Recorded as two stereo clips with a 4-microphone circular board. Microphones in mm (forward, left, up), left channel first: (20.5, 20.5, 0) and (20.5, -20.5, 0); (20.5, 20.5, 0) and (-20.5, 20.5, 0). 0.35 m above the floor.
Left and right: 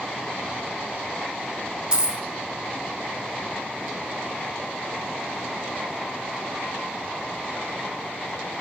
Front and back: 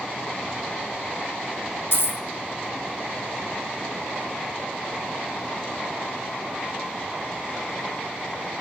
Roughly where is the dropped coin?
Ahead.